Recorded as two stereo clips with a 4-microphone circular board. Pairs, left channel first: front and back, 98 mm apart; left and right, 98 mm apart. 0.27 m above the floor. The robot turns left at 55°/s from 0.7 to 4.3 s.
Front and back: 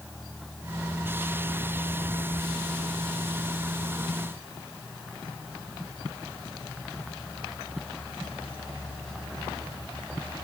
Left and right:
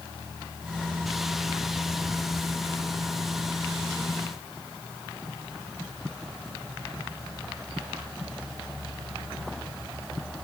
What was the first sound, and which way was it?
Only background noise.